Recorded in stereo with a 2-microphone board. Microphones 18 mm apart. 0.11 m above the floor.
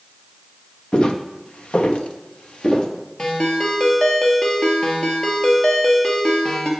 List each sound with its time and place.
0.9 s footsteps: 45° left (ahead or behind), 1.5 m; by 2.9 s 65° left (ahead or behind), 1.9 m
3.2 s a ringtone: 55° left (ahead or behind), 1.8 m